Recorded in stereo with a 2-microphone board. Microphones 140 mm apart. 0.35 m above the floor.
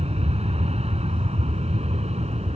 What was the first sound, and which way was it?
An aircraft, 50° right (ahead or behind).